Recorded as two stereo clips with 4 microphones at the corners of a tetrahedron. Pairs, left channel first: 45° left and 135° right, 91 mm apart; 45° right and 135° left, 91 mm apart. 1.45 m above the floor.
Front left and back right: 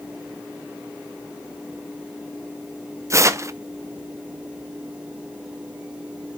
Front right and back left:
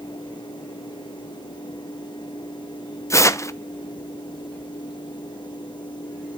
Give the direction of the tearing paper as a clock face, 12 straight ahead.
3 o'clock.